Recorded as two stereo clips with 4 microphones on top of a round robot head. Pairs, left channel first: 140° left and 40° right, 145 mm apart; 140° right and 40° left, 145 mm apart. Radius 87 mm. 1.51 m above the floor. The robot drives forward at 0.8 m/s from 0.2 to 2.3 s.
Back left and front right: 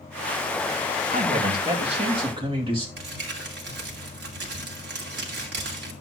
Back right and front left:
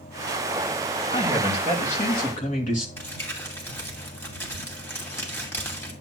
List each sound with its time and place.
1.1 s a man speaking: 80° right, 3 m; by 2.9 s 100° right, 3 m
3.0 s crumpling: 65° right, 2.5 m